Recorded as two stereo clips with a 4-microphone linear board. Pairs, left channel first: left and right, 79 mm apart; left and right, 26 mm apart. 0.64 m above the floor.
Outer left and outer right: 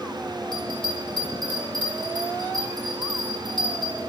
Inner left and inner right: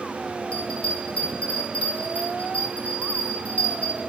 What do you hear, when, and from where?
0.5 s a bell: 75° left (ahead or behind), 7.5 m